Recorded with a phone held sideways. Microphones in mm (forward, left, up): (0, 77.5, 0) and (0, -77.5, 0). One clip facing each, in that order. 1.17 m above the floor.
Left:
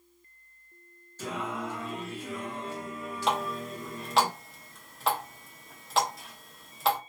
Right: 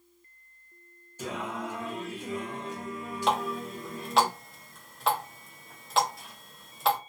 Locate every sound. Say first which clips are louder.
1.2 s singing: even; 15° right (ahead or behind), 1.2 m
3.3 s a running tap: right 2 dB; centre (ahead or behind), 0.8 m